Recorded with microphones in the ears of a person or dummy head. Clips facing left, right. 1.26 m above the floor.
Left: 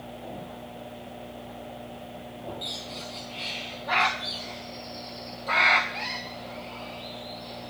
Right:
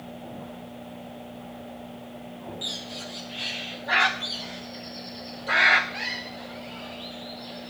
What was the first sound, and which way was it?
A bird, 10° right (ahead or behind).